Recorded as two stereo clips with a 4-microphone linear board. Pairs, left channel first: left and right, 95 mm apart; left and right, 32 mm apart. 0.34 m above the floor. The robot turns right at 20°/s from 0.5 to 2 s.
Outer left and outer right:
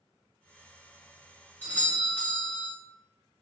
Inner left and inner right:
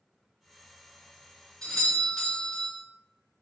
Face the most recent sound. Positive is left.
turn(degrees=15)  # may be behind; listen again after turning